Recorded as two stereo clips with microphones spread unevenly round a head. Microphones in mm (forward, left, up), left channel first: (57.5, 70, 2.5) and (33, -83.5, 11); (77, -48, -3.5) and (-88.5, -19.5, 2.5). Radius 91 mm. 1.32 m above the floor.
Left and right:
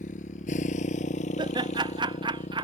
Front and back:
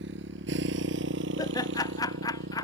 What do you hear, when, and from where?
0.0 s a motorcycle: 135° left; by 2.6 s 140° left
1.4 s laughter: 55° right